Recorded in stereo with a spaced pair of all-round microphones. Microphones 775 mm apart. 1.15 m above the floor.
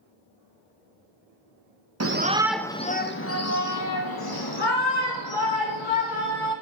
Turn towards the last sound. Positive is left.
turn(degrees=40)  # may be behind; listen again after turning